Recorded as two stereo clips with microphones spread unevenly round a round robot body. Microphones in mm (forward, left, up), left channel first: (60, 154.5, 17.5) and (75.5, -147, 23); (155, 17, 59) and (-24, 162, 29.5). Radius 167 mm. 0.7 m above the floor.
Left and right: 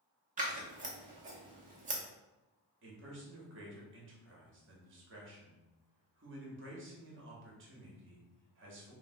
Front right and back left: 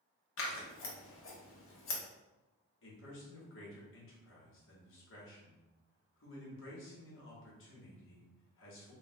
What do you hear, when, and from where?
0.4 s scissors: 25° right, 0.9 m
2.8 s a man speaking: 50° right, 1.2 m